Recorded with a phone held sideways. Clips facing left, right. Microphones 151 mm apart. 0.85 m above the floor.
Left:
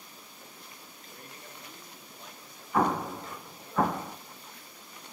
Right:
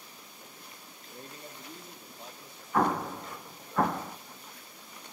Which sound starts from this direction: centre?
An explosion, at 2.7 s.